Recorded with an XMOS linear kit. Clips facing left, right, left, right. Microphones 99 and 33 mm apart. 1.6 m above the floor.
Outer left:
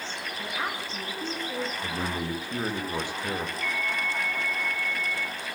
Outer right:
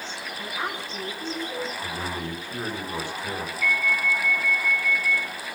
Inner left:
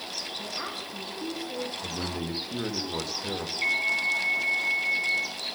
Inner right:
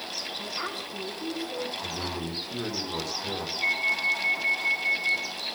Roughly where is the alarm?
Left.